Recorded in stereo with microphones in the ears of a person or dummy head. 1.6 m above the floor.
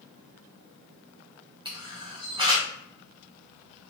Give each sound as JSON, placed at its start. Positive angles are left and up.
{"t": 1.6, "sound": "a camera shutter", "side_deg": -25, "distance_m": 0.6}